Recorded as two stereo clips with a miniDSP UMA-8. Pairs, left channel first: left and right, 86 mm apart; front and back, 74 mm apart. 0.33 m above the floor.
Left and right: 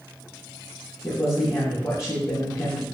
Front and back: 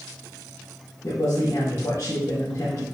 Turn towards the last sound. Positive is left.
turn(degrees=40)